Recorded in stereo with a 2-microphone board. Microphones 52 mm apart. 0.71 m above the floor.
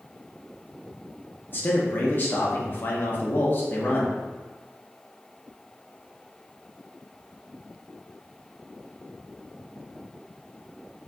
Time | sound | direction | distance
1.5 | a man speaking | 40° left (ahead or behind) | 0.6 m